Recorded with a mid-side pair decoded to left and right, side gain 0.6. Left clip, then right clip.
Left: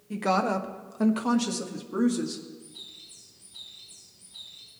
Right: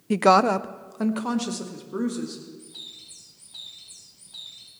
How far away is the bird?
About 6.5 m.